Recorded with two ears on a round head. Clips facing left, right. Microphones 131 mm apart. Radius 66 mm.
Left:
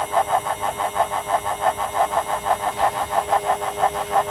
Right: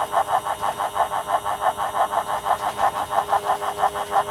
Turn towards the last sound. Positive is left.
No sound to turn to.